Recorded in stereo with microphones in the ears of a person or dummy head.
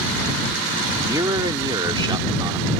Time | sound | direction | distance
1.0 | a man speaking | 25° right (ahead or behind) | ?